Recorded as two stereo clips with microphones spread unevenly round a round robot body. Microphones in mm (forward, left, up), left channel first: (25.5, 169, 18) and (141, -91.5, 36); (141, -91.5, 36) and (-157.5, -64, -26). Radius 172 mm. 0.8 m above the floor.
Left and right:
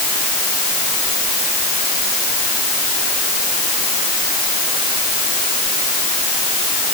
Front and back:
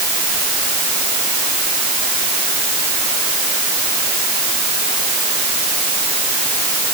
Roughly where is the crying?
No crying in this recording.